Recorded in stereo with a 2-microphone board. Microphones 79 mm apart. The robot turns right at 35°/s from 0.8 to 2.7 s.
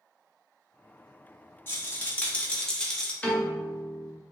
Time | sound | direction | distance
1.7 | a rattle | 130° left | 0.6 m
3.2 | a piano | 20° left (ahead or behind) | 0.8 m